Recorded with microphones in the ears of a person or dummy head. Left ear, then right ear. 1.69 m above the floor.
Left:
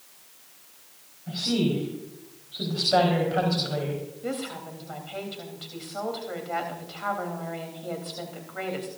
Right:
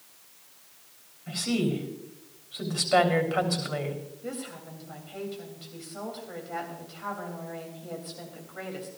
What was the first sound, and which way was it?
A woman speaking, 70° right (ahead or behind).